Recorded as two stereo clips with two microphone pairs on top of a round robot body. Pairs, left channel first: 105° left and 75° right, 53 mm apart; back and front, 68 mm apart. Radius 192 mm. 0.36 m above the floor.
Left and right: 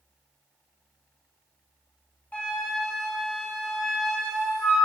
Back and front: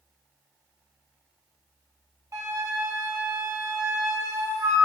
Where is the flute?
45° left, 5 m.